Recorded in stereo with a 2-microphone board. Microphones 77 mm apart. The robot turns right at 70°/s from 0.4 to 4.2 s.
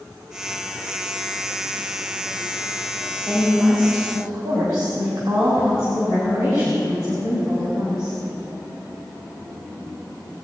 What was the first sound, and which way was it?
A woman speaking, straight behind.